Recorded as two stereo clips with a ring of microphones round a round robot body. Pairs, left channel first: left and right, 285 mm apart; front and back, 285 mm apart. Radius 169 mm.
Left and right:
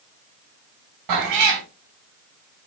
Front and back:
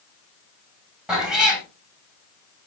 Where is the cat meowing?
95° right, 1.7 m.